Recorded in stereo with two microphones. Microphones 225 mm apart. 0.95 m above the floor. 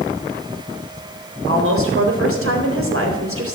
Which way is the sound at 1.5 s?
75° right (ahead or behind).